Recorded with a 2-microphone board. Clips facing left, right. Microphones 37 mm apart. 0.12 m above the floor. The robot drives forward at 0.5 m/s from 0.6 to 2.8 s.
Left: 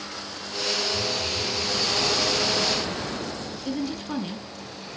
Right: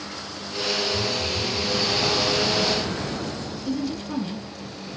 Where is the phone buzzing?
20° right (ahead or behind), 3 m.